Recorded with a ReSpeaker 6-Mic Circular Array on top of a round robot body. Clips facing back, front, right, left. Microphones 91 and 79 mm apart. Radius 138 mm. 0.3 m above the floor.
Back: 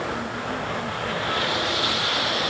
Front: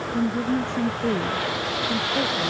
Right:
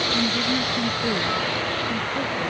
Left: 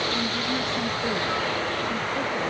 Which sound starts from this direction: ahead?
A woman speaking, at 0.1 s.